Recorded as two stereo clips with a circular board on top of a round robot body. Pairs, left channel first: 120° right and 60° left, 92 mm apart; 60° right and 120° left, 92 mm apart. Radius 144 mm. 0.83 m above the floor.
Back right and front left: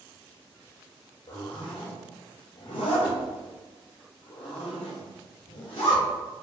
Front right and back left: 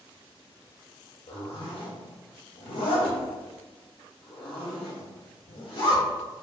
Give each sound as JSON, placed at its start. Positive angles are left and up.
{"t": 1.3, "sound": "a zipper", "azimuth_deg": -85, "distance_m": 0.5}